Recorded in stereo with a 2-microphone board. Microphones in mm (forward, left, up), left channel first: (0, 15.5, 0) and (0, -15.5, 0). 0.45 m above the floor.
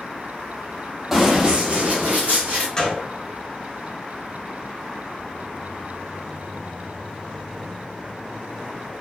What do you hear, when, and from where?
1.1 s running footsteps: 15° right (ahead or behind), 0.8 m; by 2.7 s 65° right (ahead or behind), 1.6 m
2.8 s a gunshot: 20° left (ahead or behind), 1.2 m